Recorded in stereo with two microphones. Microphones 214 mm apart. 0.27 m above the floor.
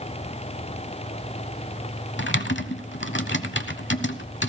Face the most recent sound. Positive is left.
turn(degrees=60)  # may be behind; listen again after turning